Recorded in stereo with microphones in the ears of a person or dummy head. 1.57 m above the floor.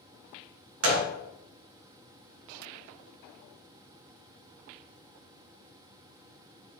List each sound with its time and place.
0.8 s a gunshot: 70° right (ahead or behind), 0.7 m